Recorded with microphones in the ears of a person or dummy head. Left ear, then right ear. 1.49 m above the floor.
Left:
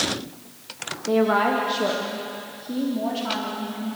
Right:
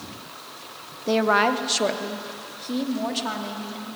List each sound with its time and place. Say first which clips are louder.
1.1 s a woman speaking: even; 90° right, 1.2 m; by 3.9 s 50° right (ahead or behind), 4 m